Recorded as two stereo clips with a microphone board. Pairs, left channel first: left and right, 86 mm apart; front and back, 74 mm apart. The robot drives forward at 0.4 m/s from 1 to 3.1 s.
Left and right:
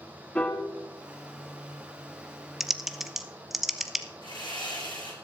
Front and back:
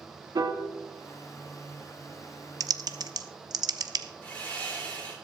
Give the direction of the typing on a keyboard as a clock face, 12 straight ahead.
6 o'clock.